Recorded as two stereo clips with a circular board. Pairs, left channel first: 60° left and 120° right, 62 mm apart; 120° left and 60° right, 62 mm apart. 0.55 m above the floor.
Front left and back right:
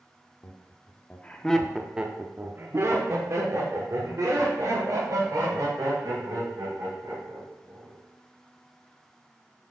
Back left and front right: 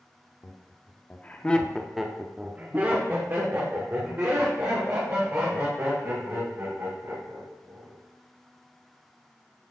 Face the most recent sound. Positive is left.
turn(degrees=-100)